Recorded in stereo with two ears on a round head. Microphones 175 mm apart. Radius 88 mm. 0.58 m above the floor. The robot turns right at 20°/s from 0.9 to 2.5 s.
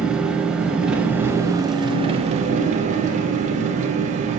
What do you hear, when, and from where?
0.0 s an engine running: 175° right, 0.9 m; by 4.4 s 145° right, 0.9 m